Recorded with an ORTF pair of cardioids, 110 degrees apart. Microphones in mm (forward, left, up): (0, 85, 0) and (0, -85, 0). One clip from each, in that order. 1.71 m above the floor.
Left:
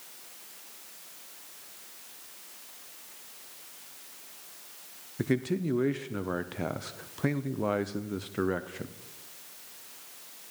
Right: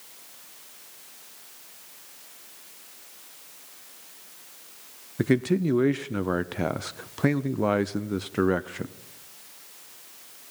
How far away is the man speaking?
About 0.8 m.